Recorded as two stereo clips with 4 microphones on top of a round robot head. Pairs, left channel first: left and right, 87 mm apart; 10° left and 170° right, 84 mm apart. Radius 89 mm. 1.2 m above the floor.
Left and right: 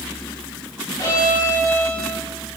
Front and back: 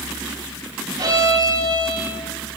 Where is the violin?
155° left, 6 m.